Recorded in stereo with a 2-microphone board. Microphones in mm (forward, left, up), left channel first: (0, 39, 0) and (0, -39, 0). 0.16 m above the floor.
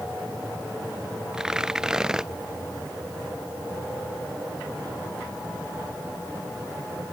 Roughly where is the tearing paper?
Centre.